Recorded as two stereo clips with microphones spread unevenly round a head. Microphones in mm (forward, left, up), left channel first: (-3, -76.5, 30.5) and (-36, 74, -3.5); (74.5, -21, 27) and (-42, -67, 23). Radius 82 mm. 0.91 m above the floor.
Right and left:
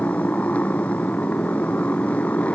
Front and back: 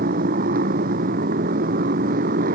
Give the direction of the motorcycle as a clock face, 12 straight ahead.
5 o'clock.